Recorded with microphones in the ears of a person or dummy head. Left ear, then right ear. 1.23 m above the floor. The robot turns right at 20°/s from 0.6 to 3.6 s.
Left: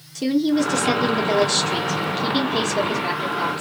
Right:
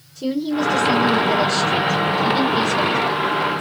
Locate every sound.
0.1 s a woman speaking: 80° left, 0.8 m; by 3.6 s 140° left, 0.8 m